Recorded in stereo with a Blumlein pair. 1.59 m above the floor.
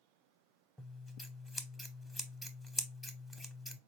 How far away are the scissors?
About 0.6 m.